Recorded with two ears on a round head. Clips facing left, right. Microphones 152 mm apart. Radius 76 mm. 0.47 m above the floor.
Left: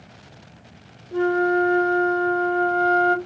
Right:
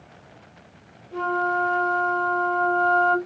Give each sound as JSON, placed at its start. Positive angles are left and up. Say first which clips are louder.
{"t": 1.1, "sound": "a flute", "louder": "left 6 dB", "side_deg": 35, "distance_m": 1.8}